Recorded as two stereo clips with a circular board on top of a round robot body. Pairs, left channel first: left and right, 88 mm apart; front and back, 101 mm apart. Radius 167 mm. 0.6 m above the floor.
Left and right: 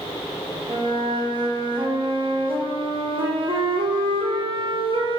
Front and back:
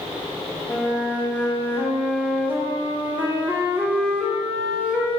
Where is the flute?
100° right, 3 m.